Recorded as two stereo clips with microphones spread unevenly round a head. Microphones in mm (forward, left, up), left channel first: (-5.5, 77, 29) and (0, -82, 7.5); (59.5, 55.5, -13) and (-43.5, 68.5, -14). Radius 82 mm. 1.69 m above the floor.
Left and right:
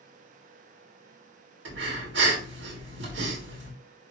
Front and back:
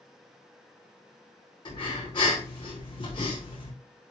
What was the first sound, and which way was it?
Breathing, 70° right.